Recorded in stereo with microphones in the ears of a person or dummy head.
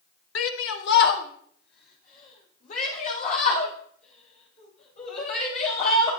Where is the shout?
70° left (ahead or behind), 0.9 m; by 6.1 s 35° left (ahead or behind), 6.5 m.